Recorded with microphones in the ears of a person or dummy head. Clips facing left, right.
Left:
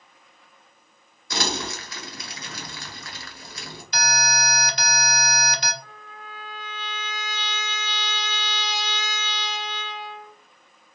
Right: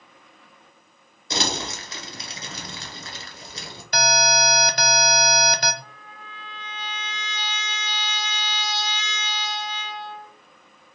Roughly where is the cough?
I don't hear a cough.